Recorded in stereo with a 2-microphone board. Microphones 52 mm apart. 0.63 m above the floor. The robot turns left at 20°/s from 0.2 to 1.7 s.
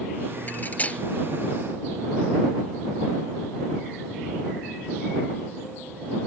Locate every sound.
0.5 s cutlery clinking: 35° left (ahead or behind); by 1.0 s 25° left (ahead or behind)